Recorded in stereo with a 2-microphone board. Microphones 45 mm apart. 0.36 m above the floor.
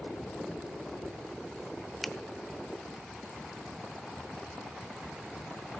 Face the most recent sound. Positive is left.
turn(degrees=5)  # may be behind; listen again after turning